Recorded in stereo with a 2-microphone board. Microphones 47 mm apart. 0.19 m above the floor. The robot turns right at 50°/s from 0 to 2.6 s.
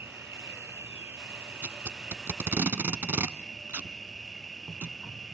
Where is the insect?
120° right, 0.7 m; by 5.3 s 10° left, 0.7 m.